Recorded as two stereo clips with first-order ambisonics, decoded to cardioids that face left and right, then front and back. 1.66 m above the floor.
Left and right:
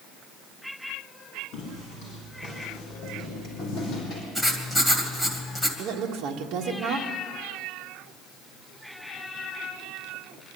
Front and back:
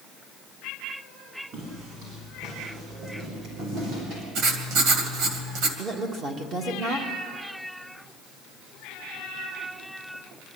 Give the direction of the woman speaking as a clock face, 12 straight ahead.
4 o'clock.